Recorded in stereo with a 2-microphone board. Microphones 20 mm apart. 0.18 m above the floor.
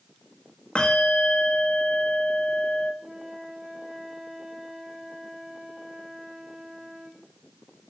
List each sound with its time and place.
0.8 s a bell: 65° left (ahead or behind), 4 m
3.0 s a flute: 50° right (ahead or behind), 3.5 m